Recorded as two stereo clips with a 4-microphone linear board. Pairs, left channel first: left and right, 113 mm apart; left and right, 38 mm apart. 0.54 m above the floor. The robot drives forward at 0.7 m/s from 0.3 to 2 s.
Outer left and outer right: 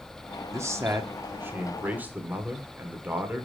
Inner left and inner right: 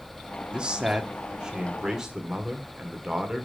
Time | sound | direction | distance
0.5 | a man speaking | 25° right (ahead or behind) | 0.9 m